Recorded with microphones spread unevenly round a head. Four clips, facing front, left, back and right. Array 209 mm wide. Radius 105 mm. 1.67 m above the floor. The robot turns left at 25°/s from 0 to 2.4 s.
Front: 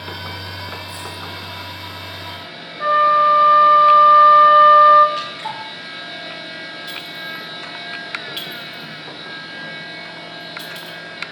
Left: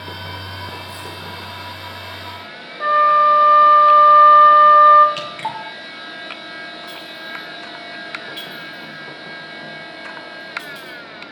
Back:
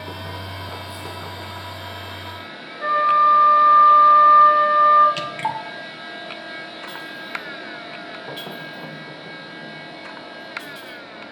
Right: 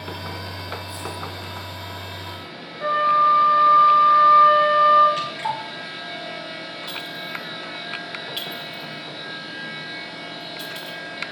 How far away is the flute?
About 1.2 m.